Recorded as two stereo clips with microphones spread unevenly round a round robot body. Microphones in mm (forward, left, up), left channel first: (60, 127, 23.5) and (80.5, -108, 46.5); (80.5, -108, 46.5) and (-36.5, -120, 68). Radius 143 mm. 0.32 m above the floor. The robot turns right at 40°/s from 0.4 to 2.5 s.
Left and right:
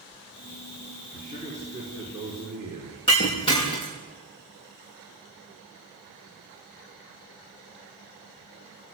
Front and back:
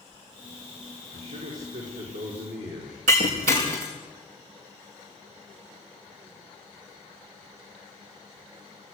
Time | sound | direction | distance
1.1 | a man speaking | 150° left | 6 m
3.1 | breaking glass | 170° left | 5.5 m